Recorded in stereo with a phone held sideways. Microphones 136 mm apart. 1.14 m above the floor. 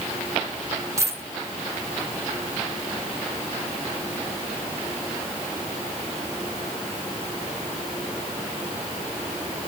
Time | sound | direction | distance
1.0 | a dropped coin | 20° right (ahead or behind) | 1.0 m